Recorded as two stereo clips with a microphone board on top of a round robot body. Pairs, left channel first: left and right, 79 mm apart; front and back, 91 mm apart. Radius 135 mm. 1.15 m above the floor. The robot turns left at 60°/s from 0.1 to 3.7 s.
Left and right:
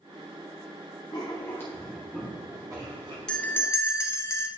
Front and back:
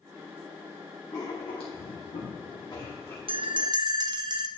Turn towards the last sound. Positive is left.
turn(degrees=145)